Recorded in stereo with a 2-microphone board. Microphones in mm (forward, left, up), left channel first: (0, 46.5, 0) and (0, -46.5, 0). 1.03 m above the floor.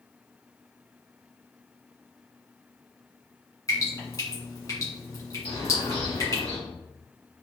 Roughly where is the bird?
Left.